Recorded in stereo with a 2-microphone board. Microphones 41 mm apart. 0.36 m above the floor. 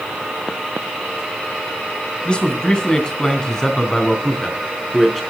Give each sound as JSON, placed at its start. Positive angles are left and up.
{"t": 2.2, "sound": "a man speaking", "side_deg": 25, "distance_m": 3.0}